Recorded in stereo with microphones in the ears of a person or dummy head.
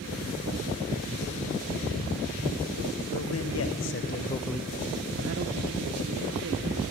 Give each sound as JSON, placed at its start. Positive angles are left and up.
{"t": 3.1, "sound": "a man speaking", "side_deg": 65, "distance_m": 1.9}